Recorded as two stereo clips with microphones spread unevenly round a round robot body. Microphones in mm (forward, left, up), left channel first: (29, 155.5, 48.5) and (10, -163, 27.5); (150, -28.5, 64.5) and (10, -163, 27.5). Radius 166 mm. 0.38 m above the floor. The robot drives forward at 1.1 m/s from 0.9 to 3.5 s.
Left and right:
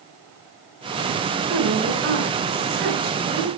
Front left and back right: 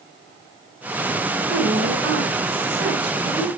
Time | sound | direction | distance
1.5 | a woman speaking | 140° right | 4 m